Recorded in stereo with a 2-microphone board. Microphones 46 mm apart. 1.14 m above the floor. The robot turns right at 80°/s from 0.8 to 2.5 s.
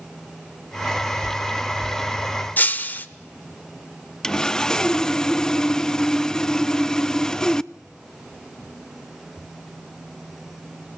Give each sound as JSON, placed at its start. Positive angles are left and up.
{"t": 2.6, "sound": "breaking glass", "side_deg": 40, "distance_m": 1.0}
{"t": 4.2, "sound": "sawing", "side_deg": 15, "distance_m": 0.5}